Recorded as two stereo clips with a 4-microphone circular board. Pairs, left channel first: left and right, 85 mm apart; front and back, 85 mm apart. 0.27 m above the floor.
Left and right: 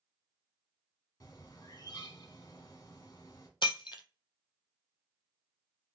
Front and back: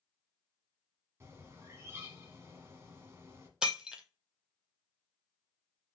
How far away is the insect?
I don't hear an insect.